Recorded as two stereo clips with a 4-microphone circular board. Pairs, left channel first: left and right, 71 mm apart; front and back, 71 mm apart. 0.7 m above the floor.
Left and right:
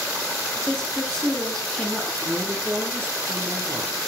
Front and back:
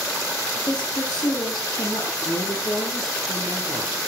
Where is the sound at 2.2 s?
35° right, 9 m.